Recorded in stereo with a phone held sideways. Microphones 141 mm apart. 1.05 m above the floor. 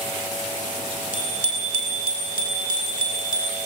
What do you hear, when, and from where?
1.1 s a bicycle bell: 70° left (ahead or behind), 8.5 m; by 3.6 s 75° left (ahead or behind), 11 m